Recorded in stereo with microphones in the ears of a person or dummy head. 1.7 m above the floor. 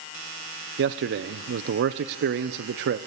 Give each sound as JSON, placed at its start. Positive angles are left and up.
{"t": 0.8, "sound": "a man speaking", "side_deg": -60, "distance_m": 0.7}